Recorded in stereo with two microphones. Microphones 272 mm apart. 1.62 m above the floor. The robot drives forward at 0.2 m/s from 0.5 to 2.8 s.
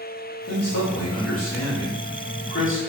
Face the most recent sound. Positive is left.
turn(degrees=45)  # may be behind; listen again after turning